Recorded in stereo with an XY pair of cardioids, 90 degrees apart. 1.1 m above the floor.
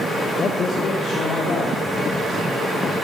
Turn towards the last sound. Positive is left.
turn(degrees=75)